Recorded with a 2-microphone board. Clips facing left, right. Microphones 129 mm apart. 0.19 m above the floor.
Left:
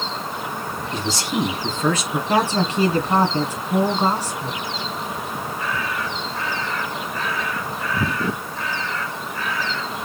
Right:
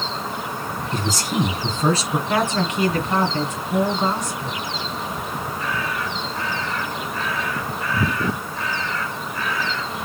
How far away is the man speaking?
About 2 m.